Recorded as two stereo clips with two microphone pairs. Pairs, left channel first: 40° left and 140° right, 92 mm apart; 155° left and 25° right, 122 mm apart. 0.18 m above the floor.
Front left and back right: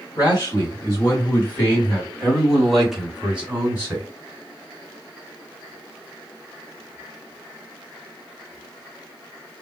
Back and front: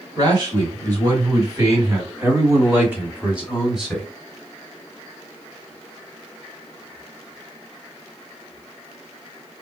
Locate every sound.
0.2 s a man speaking: 5° left, 2 m; by 4.1 s 110° right, 1.7 m